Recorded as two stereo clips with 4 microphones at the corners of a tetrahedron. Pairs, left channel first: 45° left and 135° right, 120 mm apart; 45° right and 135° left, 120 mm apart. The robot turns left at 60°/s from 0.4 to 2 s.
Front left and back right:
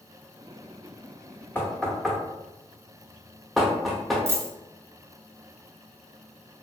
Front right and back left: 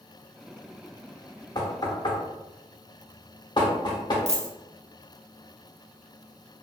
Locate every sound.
1.6 s knocking: 15° right, 0.8 m; by 4.2 s 45° right, 0.8 m
4.3 s a dropped coin: 155° left, 0.7 m